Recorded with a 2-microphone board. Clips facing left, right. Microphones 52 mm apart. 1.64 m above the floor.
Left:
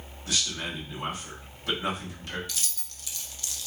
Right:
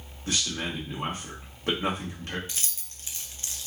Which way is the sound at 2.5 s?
30° right (ahead or behind).